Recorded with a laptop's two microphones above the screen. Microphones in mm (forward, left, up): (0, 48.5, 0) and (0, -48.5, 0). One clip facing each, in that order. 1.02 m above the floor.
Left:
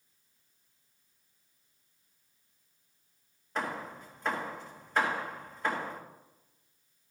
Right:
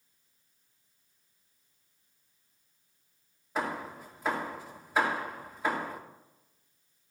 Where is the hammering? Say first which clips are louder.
Right 2 dB; 5° right (ahead or behind), 1.7 m.